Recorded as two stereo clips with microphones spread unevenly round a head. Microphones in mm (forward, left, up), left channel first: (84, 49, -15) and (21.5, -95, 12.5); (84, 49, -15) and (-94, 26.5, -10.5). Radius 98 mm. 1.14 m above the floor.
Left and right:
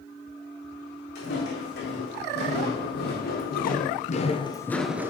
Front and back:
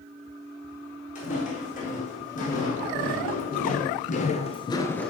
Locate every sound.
1.1 s footsteps: 55° left, 5 m; by 5.1 s 75° right, 1.2 m